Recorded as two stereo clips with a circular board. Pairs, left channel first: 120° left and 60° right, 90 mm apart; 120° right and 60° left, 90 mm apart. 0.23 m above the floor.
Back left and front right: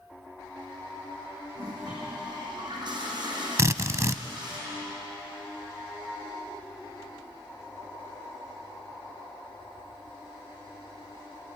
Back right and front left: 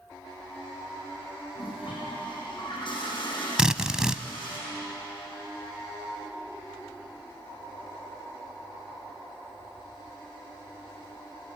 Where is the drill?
20° right, 0.6 m.